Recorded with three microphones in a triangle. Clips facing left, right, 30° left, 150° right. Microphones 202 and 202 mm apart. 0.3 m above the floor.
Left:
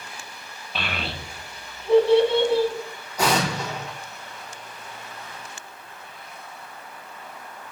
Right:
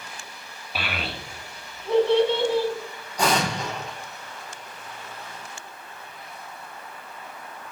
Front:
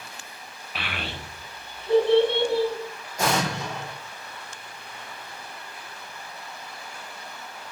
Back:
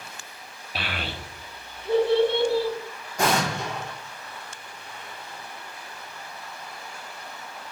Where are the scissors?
I don't hear scissors.